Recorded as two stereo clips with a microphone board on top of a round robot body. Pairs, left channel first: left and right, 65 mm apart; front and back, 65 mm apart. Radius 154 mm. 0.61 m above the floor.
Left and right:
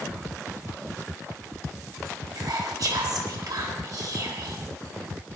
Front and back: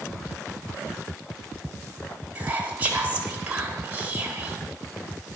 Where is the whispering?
115° right, 4 m.